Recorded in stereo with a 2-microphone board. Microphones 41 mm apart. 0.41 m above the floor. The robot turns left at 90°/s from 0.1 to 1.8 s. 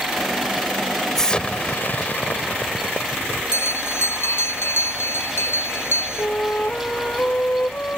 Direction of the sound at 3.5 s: 75° left (ahead or behind).